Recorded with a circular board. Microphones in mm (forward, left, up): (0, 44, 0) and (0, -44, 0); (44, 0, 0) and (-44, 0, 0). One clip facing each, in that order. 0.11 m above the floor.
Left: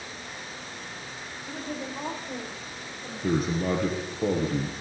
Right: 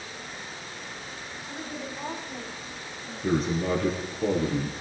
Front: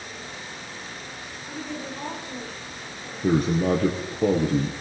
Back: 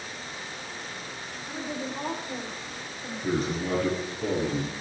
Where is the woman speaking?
105° left, 9.5 m; by 3.9 s 110° left, 12 m.